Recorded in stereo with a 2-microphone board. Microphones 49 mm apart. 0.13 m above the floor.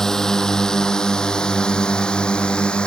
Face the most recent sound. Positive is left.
turn(degrees=20)  # may be behind; listen again after turning